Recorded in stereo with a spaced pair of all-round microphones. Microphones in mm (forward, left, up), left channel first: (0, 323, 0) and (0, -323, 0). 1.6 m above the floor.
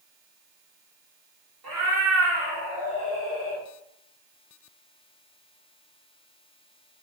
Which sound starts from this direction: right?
A cat meowing, at 1.6 s.